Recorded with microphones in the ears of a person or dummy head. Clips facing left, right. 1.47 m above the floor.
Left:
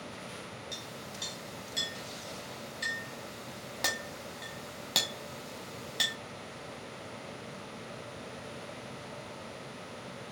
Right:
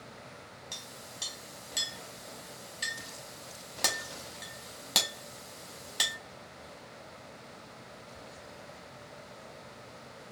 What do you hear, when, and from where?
0.7 s a clink: centre (ahead or behind), 0.9 m